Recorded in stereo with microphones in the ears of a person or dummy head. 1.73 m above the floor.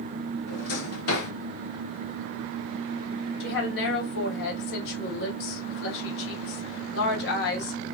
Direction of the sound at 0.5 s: 65° left (ahead or behind).